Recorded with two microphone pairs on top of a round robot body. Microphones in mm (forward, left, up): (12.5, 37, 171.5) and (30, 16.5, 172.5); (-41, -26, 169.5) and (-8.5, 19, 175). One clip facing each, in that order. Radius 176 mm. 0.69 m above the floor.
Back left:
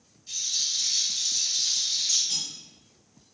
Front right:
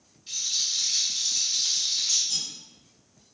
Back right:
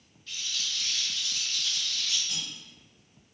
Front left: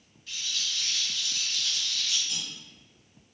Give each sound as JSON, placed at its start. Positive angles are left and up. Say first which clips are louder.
{"t": 0.3, "sound": "a rattle", "louder": "front right 1 dB, front left 1 dB", "azimuth_deg": -30, "distance_m": 2.0}
{"t": 2.3, "sound": "cutlery clinking", "louder": "even, even", "azimuth_deg": 165, "distance_m": 1.9}